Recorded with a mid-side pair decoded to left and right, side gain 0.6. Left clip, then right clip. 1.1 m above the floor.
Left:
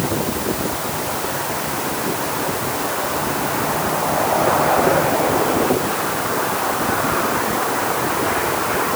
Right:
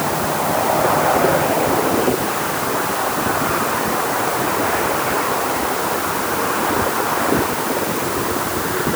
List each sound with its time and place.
Only background noise.